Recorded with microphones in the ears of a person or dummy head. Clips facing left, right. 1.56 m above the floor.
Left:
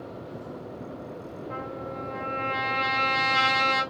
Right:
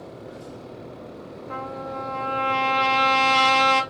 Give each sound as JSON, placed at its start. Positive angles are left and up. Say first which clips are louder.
{"t": 1.5, "sound": "a trumpet", "louder": "right 4 dB", "side_deg": -60, "distance_m": 0.6}